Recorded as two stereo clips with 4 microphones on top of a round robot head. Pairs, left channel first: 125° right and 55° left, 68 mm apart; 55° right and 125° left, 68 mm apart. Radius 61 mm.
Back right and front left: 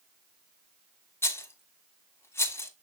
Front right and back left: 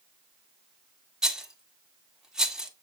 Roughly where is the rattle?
Behind right.